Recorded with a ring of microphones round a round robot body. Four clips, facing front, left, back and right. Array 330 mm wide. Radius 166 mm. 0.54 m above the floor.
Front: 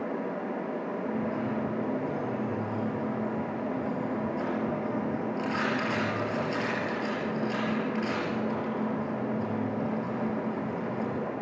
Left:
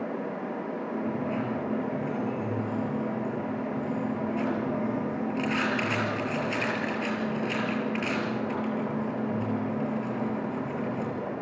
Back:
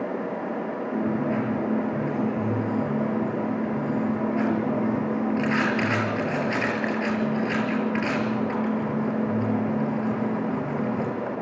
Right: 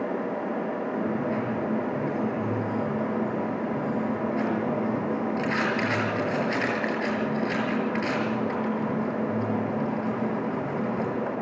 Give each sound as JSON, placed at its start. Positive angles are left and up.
{"t": 0.9, "sound": "a dropped coin", "azimuth_deg": -165, "distance_m": 4.5}